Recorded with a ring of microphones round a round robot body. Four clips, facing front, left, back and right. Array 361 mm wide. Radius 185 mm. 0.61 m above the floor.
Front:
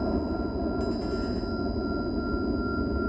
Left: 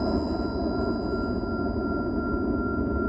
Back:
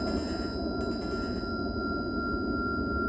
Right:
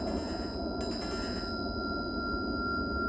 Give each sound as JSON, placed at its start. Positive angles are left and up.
{"t": 0.0, "sound": "a helicopter", "azimuth_deg": 70}